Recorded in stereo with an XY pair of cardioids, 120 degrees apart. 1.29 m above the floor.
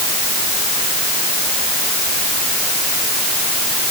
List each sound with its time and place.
Only background noise.